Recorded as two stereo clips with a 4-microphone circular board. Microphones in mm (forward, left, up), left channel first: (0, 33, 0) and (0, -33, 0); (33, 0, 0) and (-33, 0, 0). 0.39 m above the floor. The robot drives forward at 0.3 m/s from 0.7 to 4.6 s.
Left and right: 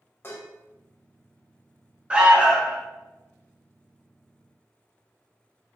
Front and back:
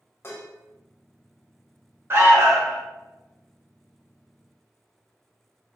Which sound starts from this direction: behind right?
An alarm, at 2.1 s.